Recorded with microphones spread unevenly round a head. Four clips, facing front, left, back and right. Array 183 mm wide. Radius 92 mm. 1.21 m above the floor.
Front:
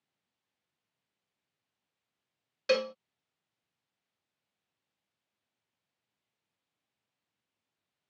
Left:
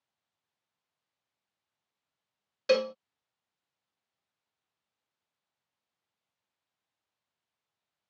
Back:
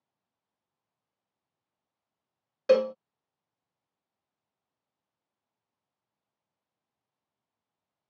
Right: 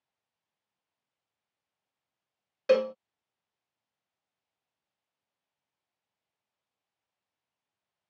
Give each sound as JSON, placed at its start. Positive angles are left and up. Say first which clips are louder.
{"t": 2.7, "sound": "a cowbell", "louder": "right 2 dB, back 7 dB", "azimuth_deg": -145}